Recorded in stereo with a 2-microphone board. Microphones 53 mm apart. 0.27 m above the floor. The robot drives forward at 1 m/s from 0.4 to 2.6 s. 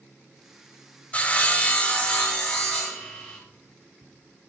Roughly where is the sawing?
Left.